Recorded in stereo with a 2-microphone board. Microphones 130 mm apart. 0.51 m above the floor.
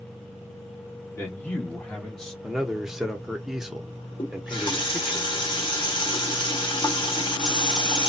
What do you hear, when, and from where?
1.1 s a man speaking: 15° left (ahead or behind), 1.1 m; by 2.3 s 5° left (ahead or behind), 1.3 m
2.4 s a man speaking: 5° right (ahead or behind), 0.7 m
4.2 s a running tap: 35° left (ahead or behind), 0.9 m